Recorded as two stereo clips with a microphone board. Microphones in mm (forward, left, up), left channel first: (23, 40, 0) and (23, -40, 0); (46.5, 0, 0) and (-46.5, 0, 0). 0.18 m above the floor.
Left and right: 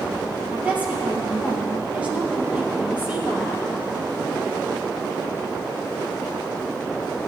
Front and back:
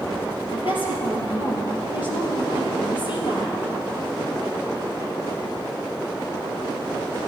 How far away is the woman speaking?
About 3.5 m.